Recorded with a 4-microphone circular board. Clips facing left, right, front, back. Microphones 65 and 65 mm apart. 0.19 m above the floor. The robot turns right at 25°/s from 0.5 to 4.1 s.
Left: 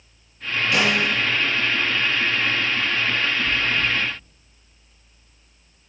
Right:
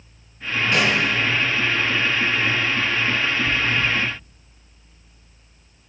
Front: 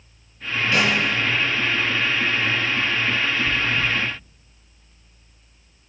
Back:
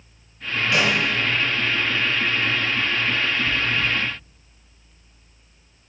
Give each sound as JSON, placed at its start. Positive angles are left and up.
{"t": 0.7, "sound": "a snare drum", "azimuth_deg": -110, "distance_m": 1.9}
{"t": 3.5, "sound": "chewing", "azimuth_deg": -45, "distance_m": 1.3}